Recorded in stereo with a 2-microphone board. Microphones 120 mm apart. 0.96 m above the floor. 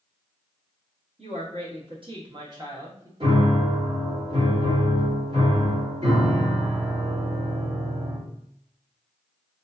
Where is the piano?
50° right (ahead or behind), 2.0 m.